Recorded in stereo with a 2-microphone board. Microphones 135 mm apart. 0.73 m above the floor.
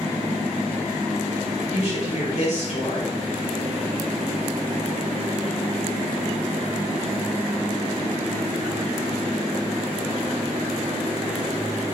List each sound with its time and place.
1.7 s a woman speaking: 50° left (ahead or behind), 1.5 m